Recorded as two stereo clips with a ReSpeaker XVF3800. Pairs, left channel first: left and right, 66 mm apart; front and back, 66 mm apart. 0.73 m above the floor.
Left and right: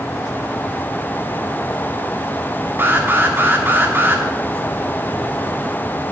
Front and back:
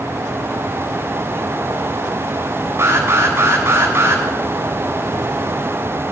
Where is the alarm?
140° right, 2.5 m.